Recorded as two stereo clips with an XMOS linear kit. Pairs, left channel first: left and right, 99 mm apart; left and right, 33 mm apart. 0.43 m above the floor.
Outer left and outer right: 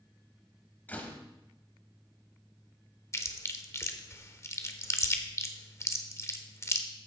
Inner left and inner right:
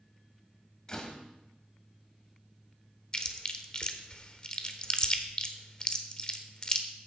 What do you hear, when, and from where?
0.9 s a door slam: 20° left (ahead or behind), 1.3 m
3.1 s chewing: 30° left (ahead or behind), 0.9 m